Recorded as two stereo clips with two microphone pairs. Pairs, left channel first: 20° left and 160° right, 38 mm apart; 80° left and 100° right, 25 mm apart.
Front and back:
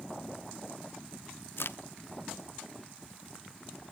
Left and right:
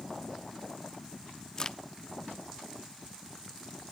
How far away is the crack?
About 0.6 m.